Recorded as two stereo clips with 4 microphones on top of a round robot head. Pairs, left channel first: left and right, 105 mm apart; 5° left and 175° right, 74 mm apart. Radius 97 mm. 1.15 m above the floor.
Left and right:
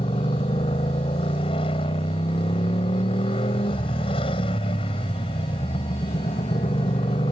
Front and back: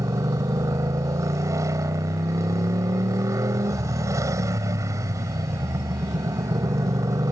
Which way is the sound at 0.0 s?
135° left.